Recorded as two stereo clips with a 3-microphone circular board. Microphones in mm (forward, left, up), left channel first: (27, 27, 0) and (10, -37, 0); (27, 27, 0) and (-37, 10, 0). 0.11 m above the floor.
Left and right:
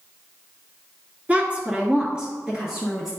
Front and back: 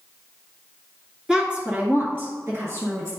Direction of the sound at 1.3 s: 110° right.